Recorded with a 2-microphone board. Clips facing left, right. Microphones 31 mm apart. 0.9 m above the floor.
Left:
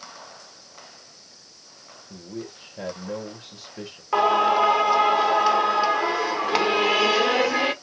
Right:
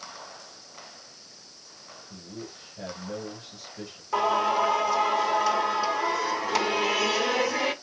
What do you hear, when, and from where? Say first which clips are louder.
2.1 s a man speaking: left 6 dB; 60° left (ahead or behind), 1.9 m
4.1 s singing: left 5 dB; 40° left (ahead or behind), 1.4 m